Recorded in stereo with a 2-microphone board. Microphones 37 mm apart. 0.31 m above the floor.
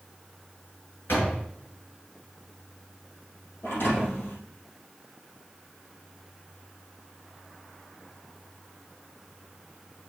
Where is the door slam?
75° left (ahead or behind), 4.5 m.